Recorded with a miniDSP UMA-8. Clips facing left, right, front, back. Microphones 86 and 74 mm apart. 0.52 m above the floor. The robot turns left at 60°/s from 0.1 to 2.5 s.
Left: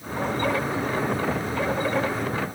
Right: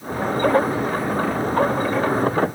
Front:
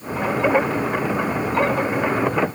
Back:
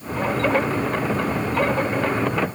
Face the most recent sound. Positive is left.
No sound to turn to.